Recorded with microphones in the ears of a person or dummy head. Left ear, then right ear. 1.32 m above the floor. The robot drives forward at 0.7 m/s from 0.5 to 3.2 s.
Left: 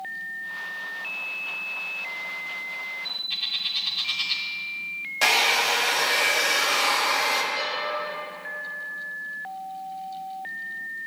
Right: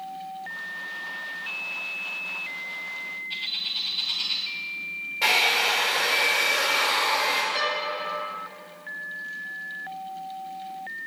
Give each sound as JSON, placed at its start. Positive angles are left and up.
{"t": 3.3, "sound": "a bird", "side_deg": 20, "distance_m": 1.0}
{"t": 5.2, "sound": "a hair dryer", "side_deg": 85, "distance_m": 1.2}
{"t": 7.5, "sound": "a violin", "side_deg": -35, "distance_m": 1.8}